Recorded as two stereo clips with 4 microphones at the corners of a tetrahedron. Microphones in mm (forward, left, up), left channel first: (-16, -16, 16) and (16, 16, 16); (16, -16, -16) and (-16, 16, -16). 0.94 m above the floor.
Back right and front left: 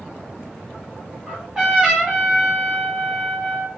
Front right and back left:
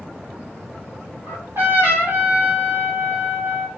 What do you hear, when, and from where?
1.3 s a trumpet: 130° left, 2 m